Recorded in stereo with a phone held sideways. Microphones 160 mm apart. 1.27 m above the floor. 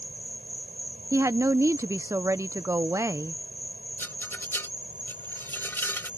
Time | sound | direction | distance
0.0 | an insect | 60° right (ahead or behind) | ?
1.1 | a woman speaking | 20° right (ahead or behind) | ?
4.0 | a rattle | 15° left (ahead or behind) | ?